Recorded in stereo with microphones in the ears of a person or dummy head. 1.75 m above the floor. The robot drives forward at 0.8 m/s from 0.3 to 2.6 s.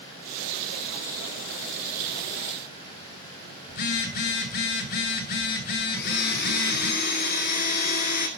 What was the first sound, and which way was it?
A phone buzzing, 50° left (ahead or behind).